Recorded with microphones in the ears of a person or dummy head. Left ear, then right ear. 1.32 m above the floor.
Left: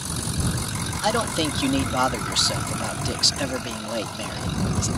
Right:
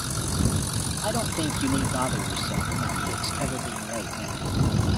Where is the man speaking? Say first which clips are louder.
Left 6 dB; 65° left (ahead or behind).